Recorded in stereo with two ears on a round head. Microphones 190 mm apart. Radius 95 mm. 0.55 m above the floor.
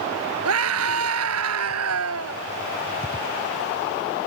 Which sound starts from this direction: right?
A scream, at 0.5 s.